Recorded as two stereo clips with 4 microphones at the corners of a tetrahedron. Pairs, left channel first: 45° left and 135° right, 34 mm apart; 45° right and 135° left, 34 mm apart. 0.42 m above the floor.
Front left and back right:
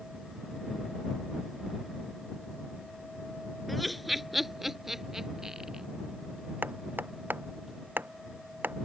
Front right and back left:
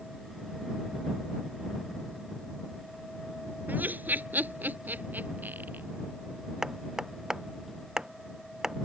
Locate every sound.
3.7 s laughter: 130° left; by 5.8 s 150° left
6.6 s hammering: 155° right